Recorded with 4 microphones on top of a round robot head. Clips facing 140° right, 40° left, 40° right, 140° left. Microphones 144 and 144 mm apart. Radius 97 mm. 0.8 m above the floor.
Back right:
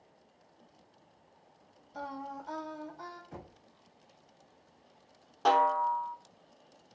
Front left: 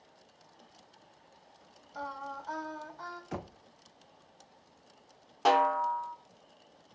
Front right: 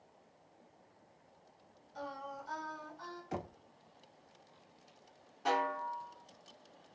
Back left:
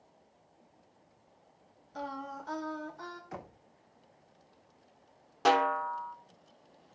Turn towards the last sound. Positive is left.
turn(degrees=120)